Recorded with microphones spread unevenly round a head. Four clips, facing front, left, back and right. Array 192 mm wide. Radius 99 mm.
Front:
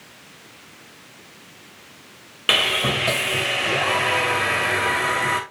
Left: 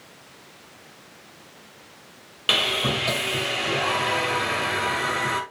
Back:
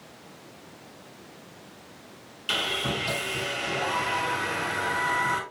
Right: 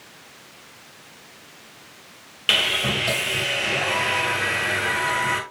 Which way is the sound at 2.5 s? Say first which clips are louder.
Even, front 7 dB; 10° left.